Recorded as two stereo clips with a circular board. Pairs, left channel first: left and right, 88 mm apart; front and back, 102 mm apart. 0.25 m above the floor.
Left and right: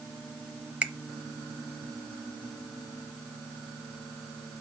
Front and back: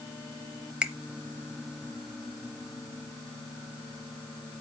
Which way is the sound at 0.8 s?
125° right.